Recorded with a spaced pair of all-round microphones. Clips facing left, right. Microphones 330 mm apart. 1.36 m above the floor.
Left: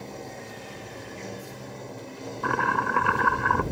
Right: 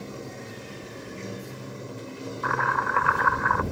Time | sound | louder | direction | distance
0.0 | running water | right 1 dB | 10° right (ahead or behind) | ?
2.4 | chopping | left 5 dB | 40° left (ahead or behind) | ?